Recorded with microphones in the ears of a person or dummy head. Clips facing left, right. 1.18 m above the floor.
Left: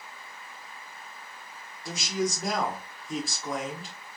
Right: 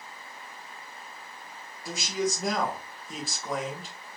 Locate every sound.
1.9 s a man speaking: centre (ahead or behind), 0.8 m